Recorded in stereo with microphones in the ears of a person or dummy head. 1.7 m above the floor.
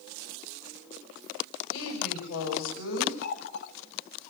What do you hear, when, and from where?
1.7 s a woman speaking: 65° left (ahead or behind), 6.5 m
3.2 s a running tap: 55° left (ahead or behind), 1.5 m